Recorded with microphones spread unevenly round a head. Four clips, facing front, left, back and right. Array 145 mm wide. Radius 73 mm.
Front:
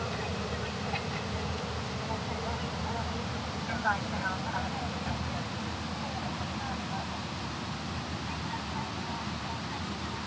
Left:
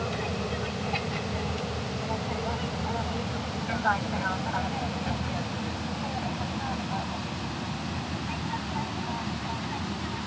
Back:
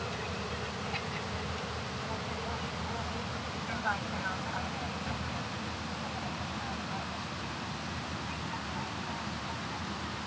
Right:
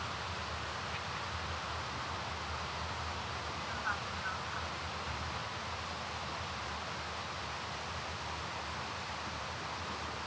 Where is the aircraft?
75° left; by 10.3 s 80° left.